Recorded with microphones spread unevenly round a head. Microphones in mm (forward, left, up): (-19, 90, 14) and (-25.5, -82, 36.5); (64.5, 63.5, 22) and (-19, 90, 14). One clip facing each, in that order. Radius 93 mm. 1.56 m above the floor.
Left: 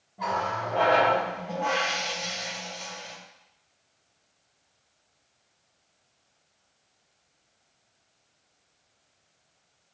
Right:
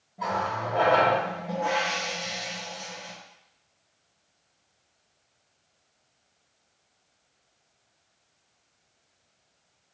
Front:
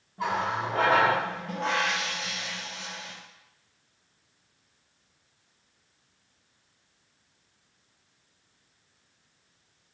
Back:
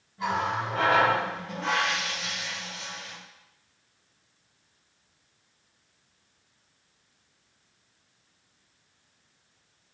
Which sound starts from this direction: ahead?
A running tap, at 0.2 s.